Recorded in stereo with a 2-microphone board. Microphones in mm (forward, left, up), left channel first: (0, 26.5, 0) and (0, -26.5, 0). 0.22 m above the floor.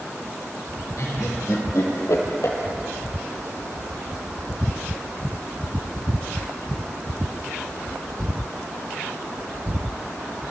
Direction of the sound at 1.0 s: 80° left.